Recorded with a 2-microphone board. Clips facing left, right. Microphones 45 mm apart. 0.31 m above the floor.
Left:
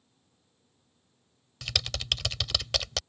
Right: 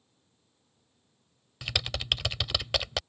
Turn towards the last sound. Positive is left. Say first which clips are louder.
# right 1 dB
turn(degrees=-10)  # may be behind; listen again after turning